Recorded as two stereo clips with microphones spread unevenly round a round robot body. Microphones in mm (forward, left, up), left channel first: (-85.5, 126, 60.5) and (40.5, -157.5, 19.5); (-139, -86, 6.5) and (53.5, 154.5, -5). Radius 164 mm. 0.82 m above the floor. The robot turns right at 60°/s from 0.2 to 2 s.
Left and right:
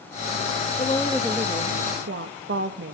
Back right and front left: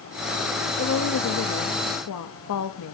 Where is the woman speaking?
175° right, 1.2 m; by 2.9 s 105° right, 1.2 m.